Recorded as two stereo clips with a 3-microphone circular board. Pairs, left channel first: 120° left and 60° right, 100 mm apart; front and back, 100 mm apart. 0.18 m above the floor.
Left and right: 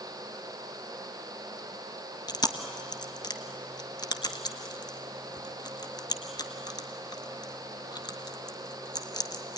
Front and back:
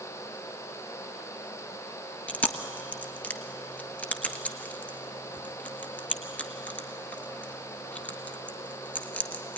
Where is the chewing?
75° left, 1.3 m.